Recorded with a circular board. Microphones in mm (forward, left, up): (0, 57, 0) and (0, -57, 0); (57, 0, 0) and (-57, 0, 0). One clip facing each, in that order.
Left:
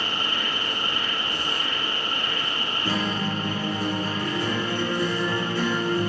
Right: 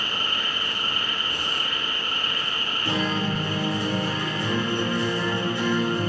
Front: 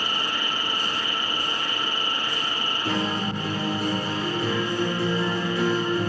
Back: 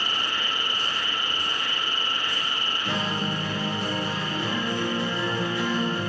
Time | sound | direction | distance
0.0 | an insect | 75° left | 1.5 m
2.9 | a guitar | 50° left | 3.5 m